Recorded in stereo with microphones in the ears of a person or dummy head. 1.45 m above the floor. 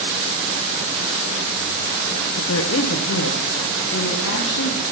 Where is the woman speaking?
80° left, 0.8 m; by 4.8 s 85° left, 3 m.